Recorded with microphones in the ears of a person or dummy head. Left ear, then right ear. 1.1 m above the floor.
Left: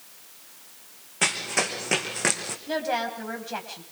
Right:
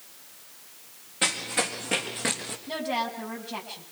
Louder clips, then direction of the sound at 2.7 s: Left 2 dB; 50° left (ahead or behind).